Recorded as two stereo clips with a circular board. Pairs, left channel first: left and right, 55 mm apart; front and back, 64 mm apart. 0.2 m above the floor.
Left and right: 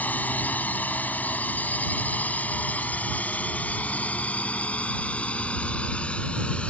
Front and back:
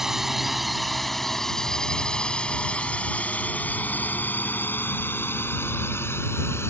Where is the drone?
100° left; by 6.7 s 25° left.